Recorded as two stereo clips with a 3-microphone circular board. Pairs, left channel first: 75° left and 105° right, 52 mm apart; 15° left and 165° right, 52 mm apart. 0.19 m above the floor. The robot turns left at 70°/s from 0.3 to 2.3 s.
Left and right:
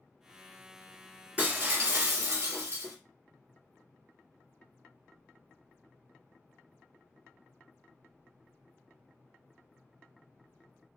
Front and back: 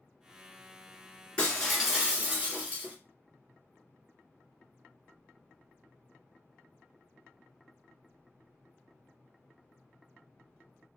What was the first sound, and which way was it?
Breaking glass, 45° right.